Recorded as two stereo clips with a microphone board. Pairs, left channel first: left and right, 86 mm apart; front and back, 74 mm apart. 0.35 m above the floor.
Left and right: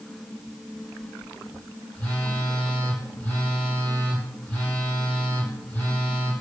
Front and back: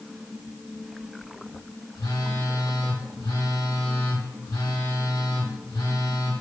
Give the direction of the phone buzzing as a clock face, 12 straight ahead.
12 o'clock.